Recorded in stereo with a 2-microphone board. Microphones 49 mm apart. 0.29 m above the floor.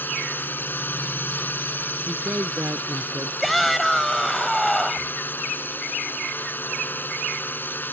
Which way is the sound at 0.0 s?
45° left (ahead or behind).